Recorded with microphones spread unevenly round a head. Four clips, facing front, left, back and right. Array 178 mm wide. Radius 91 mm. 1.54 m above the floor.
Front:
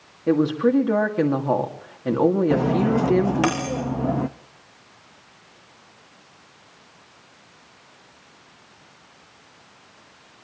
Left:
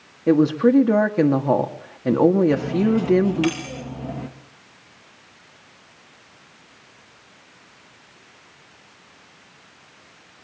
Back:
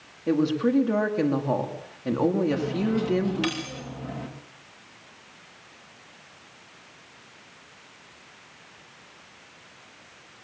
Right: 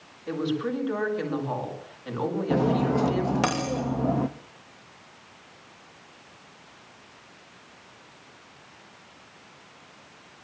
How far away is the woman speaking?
About 2.5 m.